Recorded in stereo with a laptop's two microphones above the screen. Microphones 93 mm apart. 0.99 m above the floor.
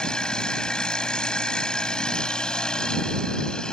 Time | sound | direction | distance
0.0 | a machine running | 10° left (ahead or behind) | ?